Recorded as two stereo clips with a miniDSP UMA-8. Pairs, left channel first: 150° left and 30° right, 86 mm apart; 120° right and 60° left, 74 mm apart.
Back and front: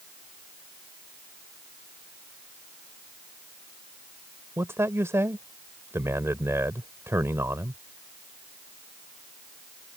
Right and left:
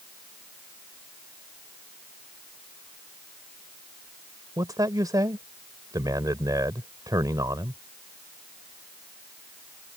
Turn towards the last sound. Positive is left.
turn(degrees=30)